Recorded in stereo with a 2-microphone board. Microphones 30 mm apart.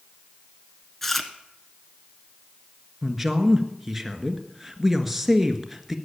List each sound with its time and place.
1.0 s chewing: 10° left (ahead or behind), 1.2 m
3.0 s a man speaking: 5° right (ahead or behind), 1.6 m